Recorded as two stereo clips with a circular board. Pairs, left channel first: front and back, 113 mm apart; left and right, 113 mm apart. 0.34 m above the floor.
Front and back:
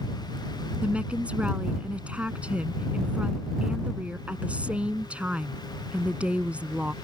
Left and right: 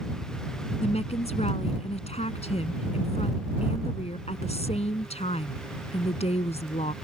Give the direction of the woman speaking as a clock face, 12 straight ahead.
9 o'clock.